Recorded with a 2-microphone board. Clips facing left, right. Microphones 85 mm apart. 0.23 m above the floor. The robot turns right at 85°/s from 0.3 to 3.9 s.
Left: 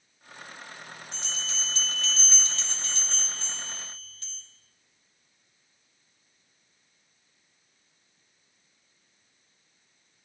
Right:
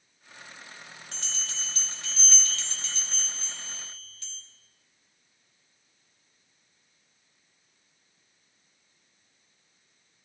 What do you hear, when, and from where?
1.1 s a bell: 95° right, 2 m; by 4.4 s 145° left, 2 m